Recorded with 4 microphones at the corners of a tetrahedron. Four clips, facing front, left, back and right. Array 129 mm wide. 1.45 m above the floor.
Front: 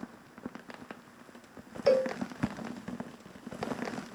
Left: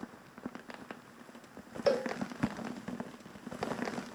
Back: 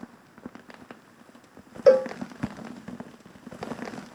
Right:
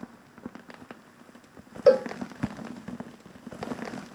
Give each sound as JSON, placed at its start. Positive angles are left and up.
{"t": 1.9, "sound": "a cowbell", "azimuth_deg": -145, "distance_m": 0.5}